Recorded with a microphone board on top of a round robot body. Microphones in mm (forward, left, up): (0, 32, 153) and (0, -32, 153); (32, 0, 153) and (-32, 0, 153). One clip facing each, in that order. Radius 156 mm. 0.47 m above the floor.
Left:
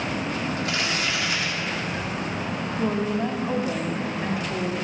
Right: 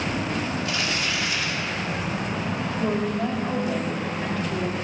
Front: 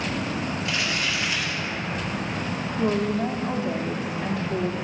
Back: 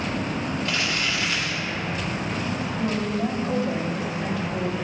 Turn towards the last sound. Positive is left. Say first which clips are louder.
# left 1 dB, front 3 dB
turn(degrees=25)